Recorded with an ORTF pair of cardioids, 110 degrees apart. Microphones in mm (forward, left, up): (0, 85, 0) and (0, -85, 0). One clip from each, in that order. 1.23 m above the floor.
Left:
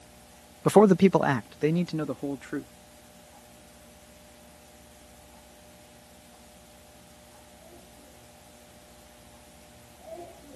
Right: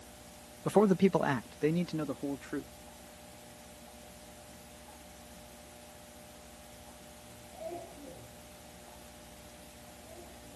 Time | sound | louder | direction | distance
0.7 | a man speaking | left 8 dB | 50° left | ?